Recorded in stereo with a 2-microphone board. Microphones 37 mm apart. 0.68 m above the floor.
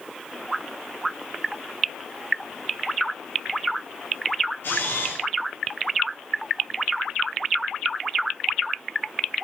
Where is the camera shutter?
70° left (ahead or behind), 4 m.